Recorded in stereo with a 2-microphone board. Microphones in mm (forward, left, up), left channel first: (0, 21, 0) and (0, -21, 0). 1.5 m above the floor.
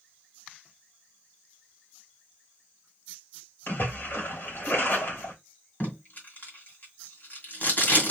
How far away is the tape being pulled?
About 2 m.